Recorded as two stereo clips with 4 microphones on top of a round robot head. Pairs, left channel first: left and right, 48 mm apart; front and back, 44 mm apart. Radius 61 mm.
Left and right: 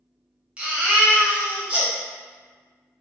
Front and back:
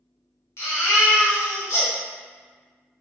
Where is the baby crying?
25° right, 1.2 m.